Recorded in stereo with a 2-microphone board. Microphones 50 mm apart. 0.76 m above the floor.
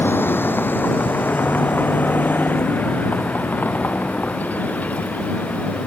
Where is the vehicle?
45° left (ahead or behind); by 5.9 s 30° left (ahead or behind).